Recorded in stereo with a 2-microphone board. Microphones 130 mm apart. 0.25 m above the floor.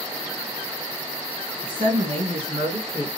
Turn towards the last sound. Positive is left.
turn(degrees=-60)  # may be behind; listen again after turning